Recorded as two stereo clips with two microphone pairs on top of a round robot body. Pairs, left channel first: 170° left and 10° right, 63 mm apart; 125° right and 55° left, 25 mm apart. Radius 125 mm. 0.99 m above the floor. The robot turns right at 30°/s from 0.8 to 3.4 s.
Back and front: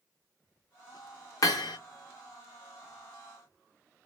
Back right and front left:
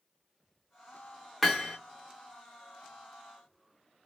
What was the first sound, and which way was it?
Hammering, 140° left.